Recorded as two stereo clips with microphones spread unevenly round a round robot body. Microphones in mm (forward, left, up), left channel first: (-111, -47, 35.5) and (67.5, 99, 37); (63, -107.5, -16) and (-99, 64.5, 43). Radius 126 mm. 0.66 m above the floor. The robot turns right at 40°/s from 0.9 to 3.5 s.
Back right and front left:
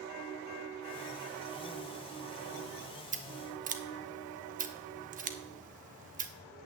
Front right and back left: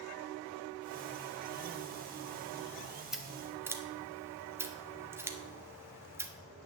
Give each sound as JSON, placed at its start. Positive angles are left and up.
{"t": 3.1, "sound": "scissors", "azimuth_deg": 25, "distance_m": 0.8}